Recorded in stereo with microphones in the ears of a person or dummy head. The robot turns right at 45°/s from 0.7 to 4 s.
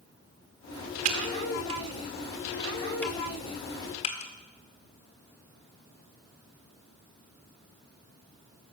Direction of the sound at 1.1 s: 45° right (ahead or behind).